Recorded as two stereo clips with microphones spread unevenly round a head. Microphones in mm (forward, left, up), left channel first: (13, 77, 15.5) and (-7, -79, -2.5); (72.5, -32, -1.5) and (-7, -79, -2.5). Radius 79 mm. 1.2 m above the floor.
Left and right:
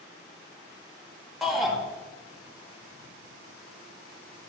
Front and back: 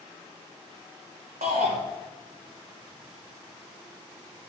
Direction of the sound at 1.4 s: 175° left.